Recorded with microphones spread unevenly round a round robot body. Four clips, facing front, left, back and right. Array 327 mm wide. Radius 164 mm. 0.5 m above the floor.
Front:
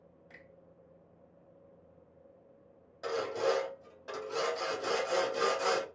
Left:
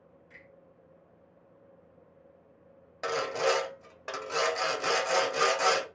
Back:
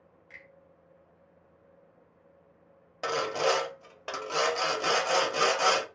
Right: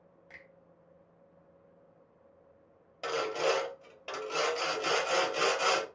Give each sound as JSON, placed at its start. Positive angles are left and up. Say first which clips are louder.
{"t": 0.3, "sound": "a finger snap", "louder": "right 2 dB, back 4 dB", "azimuth_deg": -60, "distance_m": 0.8}
{"t": 3.0, "sound": "sawing", "louder": "left 2 dB, back 4 dB", "azimuth_deg": 165, "distance_m": 0.6}